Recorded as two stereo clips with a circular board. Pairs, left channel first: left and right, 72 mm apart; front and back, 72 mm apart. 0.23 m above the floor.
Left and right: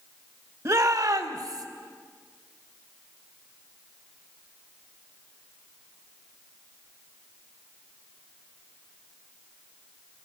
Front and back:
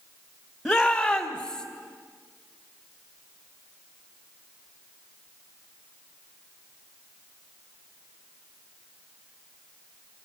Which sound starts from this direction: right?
A shout, at 0.7 s.